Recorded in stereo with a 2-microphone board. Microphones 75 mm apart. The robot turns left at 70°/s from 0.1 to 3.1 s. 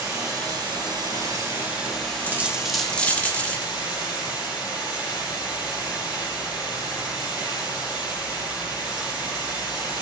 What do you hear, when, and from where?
0.0 s running water: 45° right, 8.5 m; by 10.0 s 105° left, 8.5 m
2.2 s a dropped coin: 145° right, 1.1 m; by 3.7 s 155° left, 1.1 m